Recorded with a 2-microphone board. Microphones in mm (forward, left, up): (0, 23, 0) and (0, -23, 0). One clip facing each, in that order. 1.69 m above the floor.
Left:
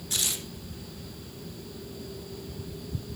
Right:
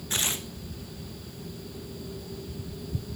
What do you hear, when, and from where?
0.1 s tearing paper: 40° right (ahead or behind), 1.4 m